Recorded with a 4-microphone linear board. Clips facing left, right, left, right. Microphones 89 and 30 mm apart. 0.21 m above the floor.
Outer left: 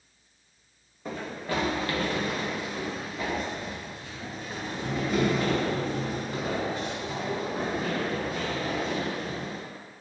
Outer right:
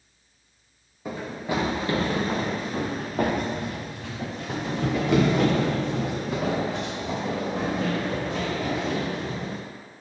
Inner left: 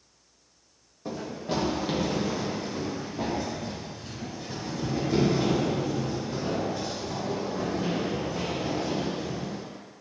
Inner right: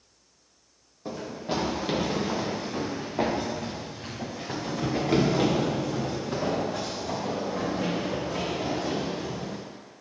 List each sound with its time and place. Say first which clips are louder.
1.1 s running footsteps: outer right 3 dB, even; 5° right (ahead or behind), 1.4 m; by 9.6 s 70° right (ahead or behind), 4 m